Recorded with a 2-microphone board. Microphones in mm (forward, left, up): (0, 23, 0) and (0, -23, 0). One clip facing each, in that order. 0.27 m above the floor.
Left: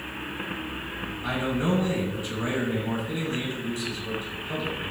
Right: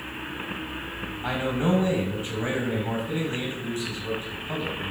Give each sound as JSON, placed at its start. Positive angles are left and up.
{"t": 1.2, "sound": "a man speaking", "side_deg": -40, "distance_m": 1.8}